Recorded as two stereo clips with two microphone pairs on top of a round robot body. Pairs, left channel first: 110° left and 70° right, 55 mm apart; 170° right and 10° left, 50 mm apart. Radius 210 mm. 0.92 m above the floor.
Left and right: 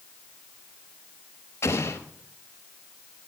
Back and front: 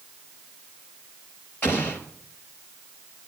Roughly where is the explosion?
Behind left.